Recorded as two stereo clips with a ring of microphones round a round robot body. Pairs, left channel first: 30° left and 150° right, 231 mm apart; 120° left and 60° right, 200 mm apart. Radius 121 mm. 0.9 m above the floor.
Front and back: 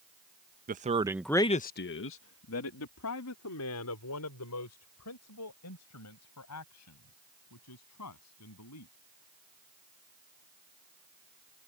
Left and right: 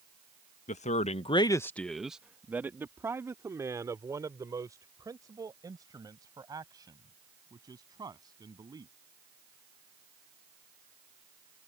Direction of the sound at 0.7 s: 165° left.